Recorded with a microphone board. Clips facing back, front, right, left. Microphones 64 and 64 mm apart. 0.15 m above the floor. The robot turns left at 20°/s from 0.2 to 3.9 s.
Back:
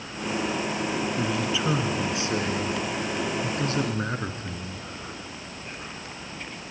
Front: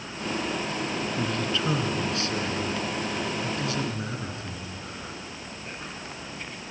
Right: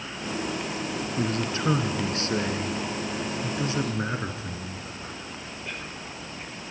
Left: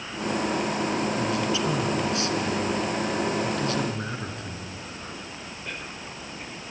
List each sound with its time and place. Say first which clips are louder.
1.2 s a man speaking: back 1 dB, left 2 dB; 100° right, 2 m; by 4.8 s 155° right, 2 m